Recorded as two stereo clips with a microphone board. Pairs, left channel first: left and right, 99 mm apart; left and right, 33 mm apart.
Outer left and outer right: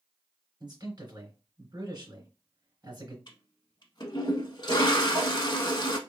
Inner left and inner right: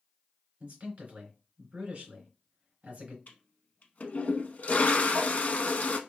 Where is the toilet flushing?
50° left (ahead or behind), 0.5 m.